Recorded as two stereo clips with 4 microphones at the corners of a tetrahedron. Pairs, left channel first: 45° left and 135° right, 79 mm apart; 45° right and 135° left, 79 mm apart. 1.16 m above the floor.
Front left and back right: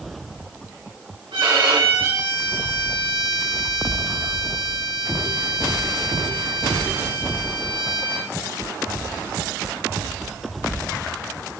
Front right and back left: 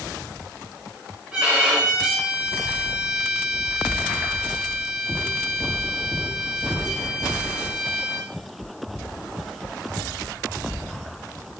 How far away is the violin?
About 5.5 m.